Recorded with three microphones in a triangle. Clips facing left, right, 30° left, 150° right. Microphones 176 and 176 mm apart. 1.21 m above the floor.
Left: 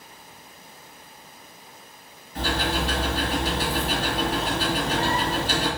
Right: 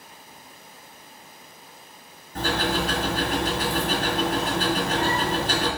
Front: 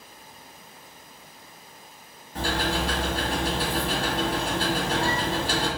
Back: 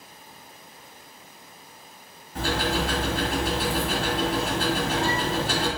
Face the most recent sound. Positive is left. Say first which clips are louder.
# right 1 dB, back 1 dB
turn(degrees=-65)